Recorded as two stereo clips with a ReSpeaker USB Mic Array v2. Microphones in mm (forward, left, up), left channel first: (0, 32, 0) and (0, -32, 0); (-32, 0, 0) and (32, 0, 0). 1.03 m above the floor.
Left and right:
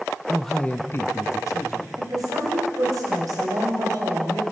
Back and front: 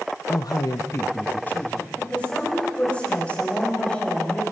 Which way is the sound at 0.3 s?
165° right.